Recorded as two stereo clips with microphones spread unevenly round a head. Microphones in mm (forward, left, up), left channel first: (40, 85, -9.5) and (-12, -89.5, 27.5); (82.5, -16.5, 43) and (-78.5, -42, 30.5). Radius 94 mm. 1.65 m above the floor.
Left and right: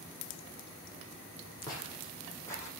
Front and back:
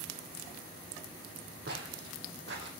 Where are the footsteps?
150° left, 4.5 m; by 2.7 s 155° left, 5 m.